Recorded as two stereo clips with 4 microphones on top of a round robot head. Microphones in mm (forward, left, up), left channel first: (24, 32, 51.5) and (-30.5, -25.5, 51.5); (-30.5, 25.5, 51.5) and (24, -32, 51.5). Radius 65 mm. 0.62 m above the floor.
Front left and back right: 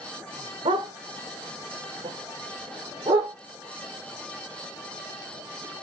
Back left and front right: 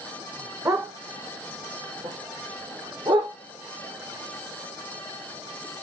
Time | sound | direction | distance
0.7 | a dog barking | 105° right | 2.5 m